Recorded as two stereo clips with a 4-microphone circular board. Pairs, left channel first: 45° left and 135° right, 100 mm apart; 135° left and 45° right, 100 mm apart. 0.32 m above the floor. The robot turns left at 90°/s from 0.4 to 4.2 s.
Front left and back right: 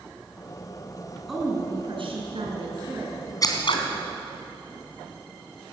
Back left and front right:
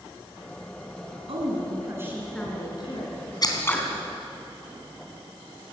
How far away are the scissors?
About 3 m.